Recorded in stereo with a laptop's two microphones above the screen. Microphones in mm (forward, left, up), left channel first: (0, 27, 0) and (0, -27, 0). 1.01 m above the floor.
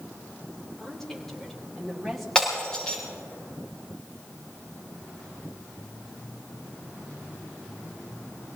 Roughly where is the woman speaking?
Centre.